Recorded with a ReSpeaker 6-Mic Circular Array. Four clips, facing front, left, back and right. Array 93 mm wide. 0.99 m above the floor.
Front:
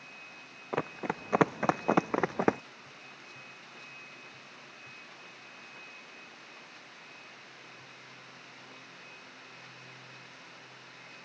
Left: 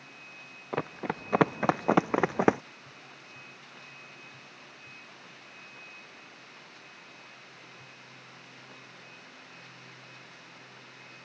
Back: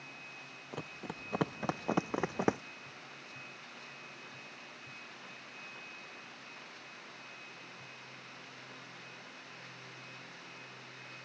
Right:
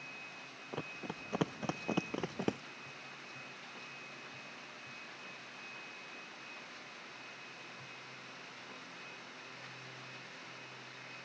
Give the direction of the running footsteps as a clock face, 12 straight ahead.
11 o'clock.